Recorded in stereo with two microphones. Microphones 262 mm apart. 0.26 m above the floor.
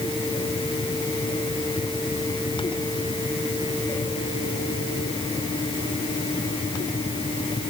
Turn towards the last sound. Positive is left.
No sound to turn to.